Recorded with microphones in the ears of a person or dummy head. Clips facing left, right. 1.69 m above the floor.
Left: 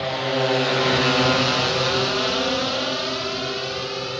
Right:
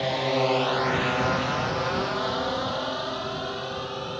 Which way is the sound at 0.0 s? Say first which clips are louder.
Left 1 dB; centre (ahead or behind).